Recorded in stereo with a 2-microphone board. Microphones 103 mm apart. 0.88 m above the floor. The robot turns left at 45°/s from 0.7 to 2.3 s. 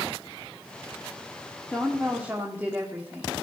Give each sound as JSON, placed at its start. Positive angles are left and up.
{"t": 1.7, "sound": "a woman speaking", "side_deg": 10, "distance_m": 2.0}